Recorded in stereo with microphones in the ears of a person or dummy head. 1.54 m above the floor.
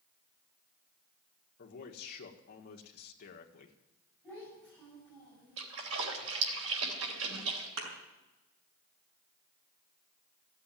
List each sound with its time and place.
1.6 s a man speaking: 50° left (ahead or behind), 1.5 m
4.2 s a child speaking: 10° right (ahead or behind), 9.5 m
5.6 s a splash: 70° right (ahead or behind), 3 m
7.8 s a thud: 65° right (ahead or behind), 5 m